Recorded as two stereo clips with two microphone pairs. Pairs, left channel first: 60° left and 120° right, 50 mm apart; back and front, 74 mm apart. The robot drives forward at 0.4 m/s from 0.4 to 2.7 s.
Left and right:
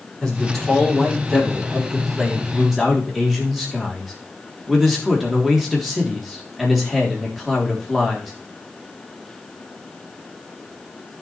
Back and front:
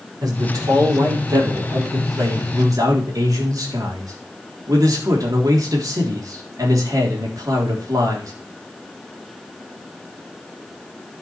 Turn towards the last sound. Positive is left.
turn(degrees=-35)